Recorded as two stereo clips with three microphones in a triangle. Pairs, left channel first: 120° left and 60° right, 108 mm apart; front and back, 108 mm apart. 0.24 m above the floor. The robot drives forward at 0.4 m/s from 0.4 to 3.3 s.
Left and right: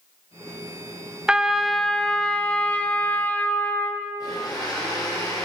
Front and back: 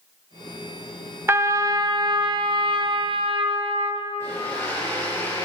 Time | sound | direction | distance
1.3 | a trumpet | 135° right | 0.6 m
4.2 | a blender | 65° left | 6 m